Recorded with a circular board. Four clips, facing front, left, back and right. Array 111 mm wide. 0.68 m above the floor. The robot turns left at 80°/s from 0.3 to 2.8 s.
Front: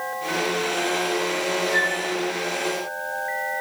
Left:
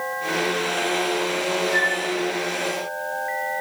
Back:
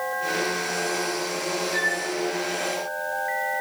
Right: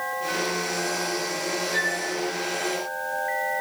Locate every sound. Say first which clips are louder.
1.7 s a flute: left 4 dB, front 3 dB; 80° left, 3 m; by 2.1 s 55° left, 3 m